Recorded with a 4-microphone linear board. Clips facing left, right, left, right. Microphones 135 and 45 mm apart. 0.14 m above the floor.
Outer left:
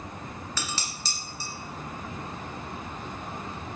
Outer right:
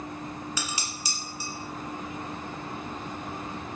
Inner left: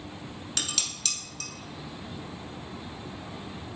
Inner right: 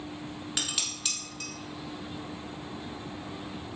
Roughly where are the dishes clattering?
Centre.